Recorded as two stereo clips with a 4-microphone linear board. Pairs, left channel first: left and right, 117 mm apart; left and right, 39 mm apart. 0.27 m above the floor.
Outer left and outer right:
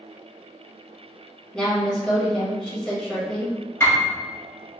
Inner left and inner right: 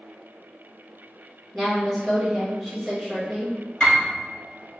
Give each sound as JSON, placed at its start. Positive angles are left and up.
{"t": 1.5, "sound": "a woman speaking", "side_deg": 10, "distance_m": 0.9}
{"t": 3.8, "sound": "a piano", "side_deg": 20, "distance_m": 1.3}